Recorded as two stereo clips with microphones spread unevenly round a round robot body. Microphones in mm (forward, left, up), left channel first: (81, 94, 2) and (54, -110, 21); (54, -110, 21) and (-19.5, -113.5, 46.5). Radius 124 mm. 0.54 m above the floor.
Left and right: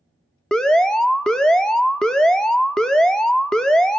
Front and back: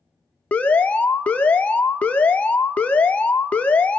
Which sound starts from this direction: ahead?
An alarm, at 0.5 s.